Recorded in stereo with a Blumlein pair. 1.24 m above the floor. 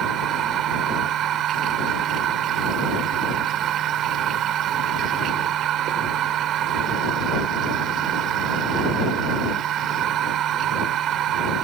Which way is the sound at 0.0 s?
30° right.